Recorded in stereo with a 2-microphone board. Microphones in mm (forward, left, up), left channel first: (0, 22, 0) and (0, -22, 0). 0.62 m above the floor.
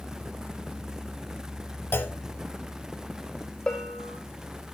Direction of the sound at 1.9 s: 60° left (ahead or behind).